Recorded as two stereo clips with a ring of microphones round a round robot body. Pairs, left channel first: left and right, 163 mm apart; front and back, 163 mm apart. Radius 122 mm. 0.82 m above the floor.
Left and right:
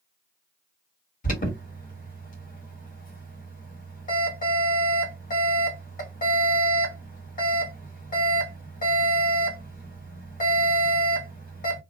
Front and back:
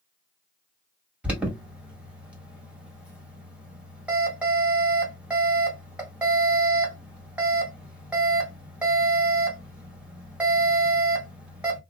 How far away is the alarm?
About 1.8 m.